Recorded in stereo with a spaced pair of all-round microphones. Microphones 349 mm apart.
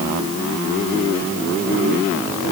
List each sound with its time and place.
Only background noise.